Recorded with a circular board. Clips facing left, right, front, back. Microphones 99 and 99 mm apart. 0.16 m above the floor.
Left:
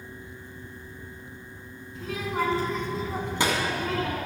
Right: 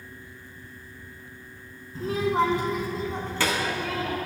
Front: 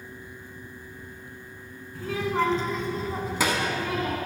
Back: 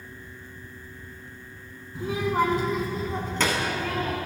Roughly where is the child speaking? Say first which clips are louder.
Right 6 dB, back 2 dB; behind right.